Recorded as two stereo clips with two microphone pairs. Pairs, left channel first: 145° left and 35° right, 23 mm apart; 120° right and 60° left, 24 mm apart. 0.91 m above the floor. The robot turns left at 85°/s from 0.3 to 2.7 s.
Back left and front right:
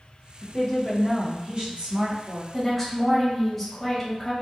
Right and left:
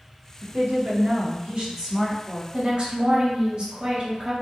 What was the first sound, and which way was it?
A woman speaking, 110° left.